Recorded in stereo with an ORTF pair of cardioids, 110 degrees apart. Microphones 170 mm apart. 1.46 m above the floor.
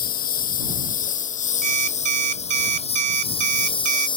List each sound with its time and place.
0.0 s a lawn mower: 60° left; by 4.2 s 30° left
1.6 s an alarm clock: 45° right